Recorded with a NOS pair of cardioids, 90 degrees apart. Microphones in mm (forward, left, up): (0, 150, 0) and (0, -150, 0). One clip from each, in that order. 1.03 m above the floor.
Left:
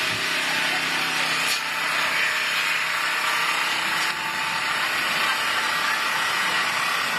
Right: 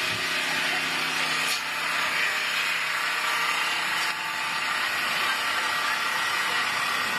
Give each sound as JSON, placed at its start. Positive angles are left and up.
{"t": 0.0, "sound": "an engine running", "azimuth_deg": 15, "distance_m": 0.8}